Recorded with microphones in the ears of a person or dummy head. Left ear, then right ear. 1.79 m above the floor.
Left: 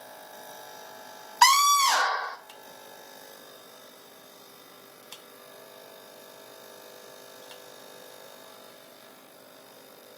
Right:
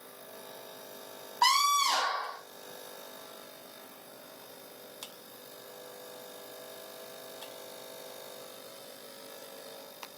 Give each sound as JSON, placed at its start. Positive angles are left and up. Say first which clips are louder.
{"t": 1.4, "sound": "a scream", "louder": "left 6 dB", "side_deg": 70, "distance_m": 1.4}